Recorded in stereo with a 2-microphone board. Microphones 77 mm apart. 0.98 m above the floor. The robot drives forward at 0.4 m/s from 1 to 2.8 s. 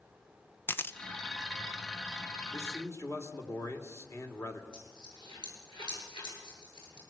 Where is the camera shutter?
30° left (ahead or behind), 0.8 m.